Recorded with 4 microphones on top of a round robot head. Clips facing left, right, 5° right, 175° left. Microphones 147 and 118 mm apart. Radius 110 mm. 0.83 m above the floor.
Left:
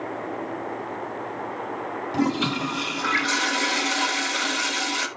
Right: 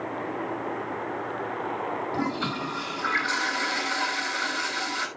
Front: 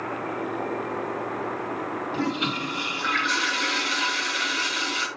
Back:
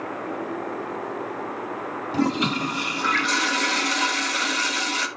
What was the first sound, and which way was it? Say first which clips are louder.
A toilet flushing: left 10 dB, back 6 dB; 150° left.